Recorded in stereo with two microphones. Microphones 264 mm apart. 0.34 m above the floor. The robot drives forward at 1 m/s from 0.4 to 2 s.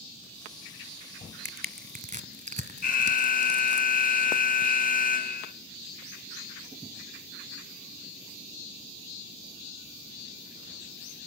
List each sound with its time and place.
1.4 s crushing: 40° right (ahead or behind), 1.1 m; by 3.8 s 30° right (ahead or behind), 1.5 m
2.8 s an alarm: 35° left (ahead or behind), 0.7 m